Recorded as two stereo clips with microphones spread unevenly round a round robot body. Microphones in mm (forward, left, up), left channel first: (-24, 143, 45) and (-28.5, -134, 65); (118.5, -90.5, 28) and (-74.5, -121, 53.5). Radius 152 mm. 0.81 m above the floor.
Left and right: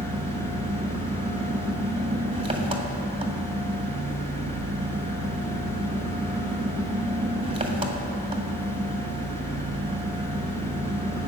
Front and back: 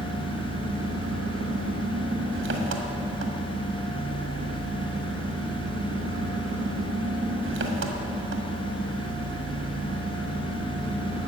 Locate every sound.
0.0 s an engine running: 165° right, 1.6 m